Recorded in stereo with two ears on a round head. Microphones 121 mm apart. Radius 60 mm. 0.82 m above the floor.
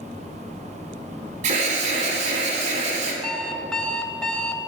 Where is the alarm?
55° right (ahead or behind), 3 m.